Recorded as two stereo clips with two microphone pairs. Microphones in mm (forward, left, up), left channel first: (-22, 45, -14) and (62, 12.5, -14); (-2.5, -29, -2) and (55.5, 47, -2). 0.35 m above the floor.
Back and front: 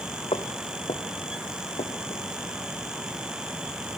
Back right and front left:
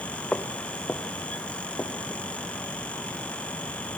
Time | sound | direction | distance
0.3 | footsteps | 160° left | 2.5 m